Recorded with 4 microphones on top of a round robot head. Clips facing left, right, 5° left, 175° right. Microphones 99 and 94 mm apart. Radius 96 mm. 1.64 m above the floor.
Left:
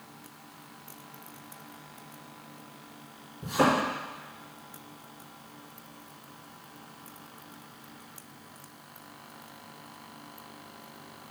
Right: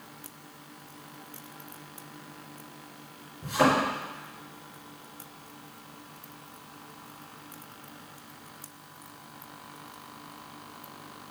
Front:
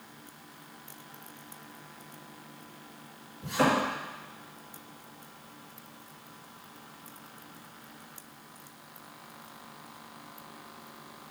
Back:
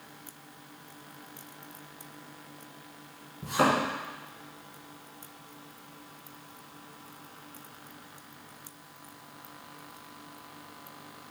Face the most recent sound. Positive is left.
turn(degrees=140)